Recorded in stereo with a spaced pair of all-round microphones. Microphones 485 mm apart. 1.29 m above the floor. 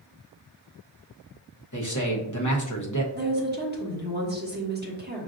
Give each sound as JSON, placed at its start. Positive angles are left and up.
{"t": 1.7, "sound": "a man speaking", "side_deg": 40, "distance_m": 0.9}
{"t": 3.1, "sound": "a woman speaking", "side_deg": -20, "distance_m": 1.1}